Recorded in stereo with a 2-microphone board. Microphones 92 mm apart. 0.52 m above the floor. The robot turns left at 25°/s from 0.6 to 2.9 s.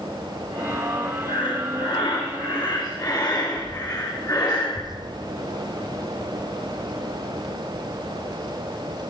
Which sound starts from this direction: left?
Breathing, at 1.3 s.